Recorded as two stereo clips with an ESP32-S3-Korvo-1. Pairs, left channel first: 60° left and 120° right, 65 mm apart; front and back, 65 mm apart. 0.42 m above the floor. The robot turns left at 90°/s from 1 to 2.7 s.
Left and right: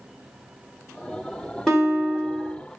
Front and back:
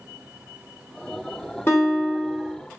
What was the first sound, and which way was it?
A guitar, 20° right.